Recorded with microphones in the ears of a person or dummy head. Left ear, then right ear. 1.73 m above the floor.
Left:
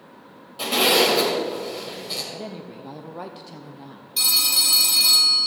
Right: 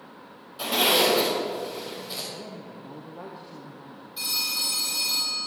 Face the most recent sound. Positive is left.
turn(degrees=40)  # may be behind; listen again after turning